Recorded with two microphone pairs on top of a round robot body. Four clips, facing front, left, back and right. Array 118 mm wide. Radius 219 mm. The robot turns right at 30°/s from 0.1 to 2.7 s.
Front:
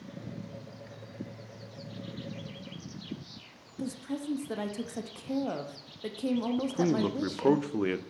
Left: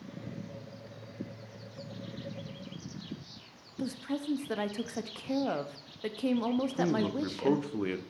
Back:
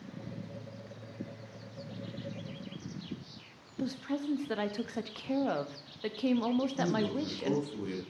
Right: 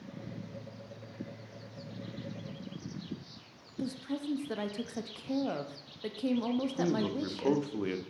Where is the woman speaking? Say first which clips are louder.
Left 1 dB, back 1 dB; 135° left, 1.0 m.